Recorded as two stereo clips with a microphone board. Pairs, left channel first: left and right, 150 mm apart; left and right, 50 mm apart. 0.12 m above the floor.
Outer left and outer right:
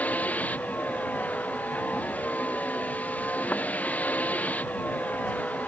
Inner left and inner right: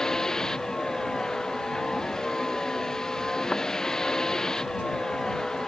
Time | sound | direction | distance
0.0 | a vehicle | 10° left (ahead or behind) | ?